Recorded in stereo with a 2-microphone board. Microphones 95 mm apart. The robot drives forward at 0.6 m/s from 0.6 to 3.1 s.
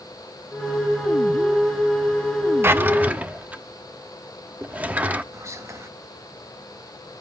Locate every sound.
2.6 s a drawer: 25° right (ahead or behind), 0.5 m; by 5.2 s 15° right (ahead or behind), 0.7 m
5.3 s whispering: 30° right (ahead or behind), 1.3 m